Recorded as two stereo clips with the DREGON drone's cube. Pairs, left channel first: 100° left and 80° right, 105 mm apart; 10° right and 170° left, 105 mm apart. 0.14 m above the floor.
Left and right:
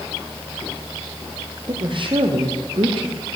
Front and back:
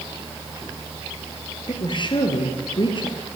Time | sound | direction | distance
1.7 | a woman speaking | 50° right | 4 m